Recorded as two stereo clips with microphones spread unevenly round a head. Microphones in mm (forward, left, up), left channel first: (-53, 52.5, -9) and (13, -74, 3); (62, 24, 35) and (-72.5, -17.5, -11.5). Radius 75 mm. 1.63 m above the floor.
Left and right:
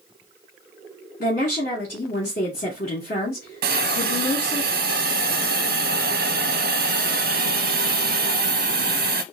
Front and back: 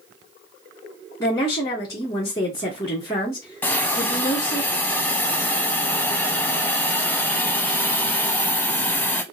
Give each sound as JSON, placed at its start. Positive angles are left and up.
{"t": 1.2, "sound": "a woman speaking", "azimuth_deg": 80, "distance_m": 2.0}
{"t": 3.6, "sound": "a hiss", "azimuth_deg": -55, "distance_m": 0.6}